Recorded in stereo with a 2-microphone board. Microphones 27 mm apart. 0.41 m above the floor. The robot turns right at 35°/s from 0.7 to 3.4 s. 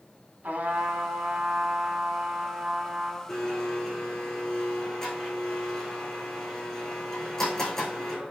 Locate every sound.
0.4 s a trumpet: 100° right, 1.7 m; by 3.2 s 15° right, 1.7 m
3.3 s a blender: 15° left (ahead or behind), 4 m